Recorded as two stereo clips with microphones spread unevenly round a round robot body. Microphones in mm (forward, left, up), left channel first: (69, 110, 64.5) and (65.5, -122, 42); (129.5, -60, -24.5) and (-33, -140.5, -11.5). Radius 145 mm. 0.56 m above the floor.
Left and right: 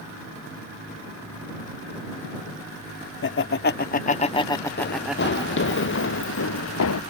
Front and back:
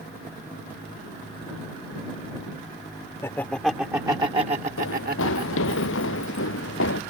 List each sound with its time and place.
3.2 s laughter: 100° left; by 5.8 s 155° right
4.8 s running footsteps: 45° left; by 7.0 s 70° left